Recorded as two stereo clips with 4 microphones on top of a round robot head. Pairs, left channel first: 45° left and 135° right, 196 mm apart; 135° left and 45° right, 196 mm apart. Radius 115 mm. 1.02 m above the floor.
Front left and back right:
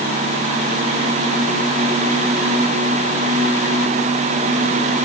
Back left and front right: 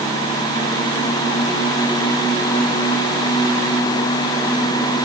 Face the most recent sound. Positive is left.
No sound to turn to.